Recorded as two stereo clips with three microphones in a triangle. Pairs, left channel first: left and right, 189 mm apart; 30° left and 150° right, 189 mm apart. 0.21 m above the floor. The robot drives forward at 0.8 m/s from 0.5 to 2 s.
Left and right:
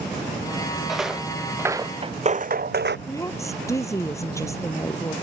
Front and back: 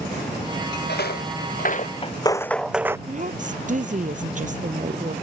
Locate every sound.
0.9 s footsteps: straight ahead; by 3.0 s 75° right
3.1 s a woman speaking: 165° left